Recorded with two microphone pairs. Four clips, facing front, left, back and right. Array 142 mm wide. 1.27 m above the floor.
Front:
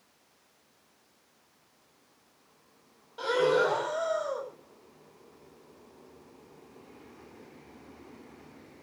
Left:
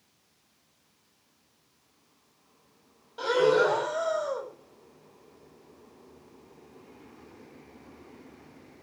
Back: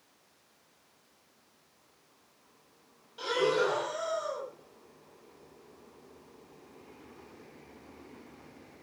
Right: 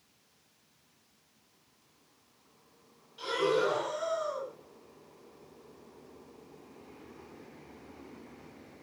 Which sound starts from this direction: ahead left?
Breathing, at 3.2 s.